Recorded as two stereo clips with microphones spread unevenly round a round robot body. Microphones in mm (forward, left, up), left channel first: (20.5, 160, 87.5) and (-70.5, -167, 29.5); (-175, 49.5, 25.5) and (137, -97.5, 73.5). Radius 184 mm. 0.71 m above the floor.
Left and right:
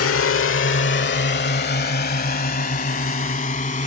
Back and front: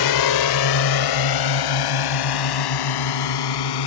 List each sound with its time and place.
0.0 s a drone: 125° left; by 3.9 s 145° left